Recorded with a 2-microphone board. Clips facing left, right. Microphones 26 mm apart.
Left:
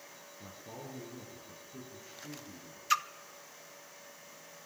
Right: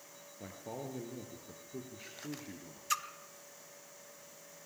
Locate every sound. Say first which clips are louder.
0.4 s a man speaking: right 4 dB; 60° right (ahead or behind), 4 m
2.9 s a splash: left 6 dB; 20° left (ahead or behind), 0.7 m